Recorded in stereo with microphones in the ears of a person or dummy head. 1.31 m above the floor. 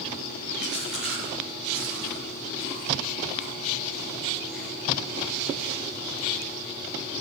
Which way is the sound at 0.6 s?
5° left (ahead or behind).